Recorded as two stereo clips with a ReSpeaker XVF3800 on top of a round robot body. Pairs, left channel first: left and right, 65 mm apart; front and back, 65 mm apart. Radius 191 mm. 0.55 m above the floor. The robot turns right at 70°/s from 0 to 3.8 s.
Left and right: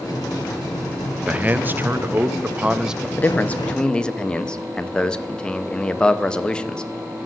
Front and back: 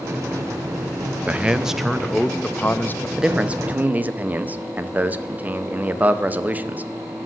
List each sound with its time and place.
1.3 s a man speaking: 135° right, 0.8 m; by 3.1 s 10° right, 0.8 m
3.2 s a man speaking: 110° left, 0.9 m; by 6.9 s 155° left, 0.9 m